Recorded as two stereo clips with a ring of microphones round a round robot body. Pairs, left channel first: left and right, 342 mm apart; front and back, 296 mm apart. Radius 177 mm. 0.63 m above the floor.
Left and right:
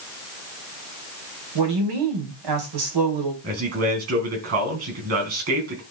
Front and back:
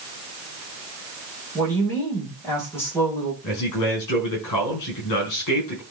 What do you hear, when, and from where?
1.6 s a woman speaking: 85° right, 3 m
3.4 s a man speaking: 40° right, 5 m